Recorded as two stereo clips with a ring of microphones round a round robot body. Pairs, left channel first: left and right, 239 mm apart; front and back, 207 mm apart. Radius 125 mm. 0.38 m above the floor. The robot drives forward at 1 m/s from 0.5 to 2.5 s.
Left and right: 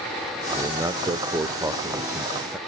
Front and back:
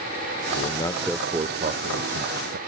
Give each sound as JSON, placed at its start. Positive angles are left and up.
{"t": 0.5, "sound": "a man speaking", "azimuth_deg": -20, "distance_m": 1.0}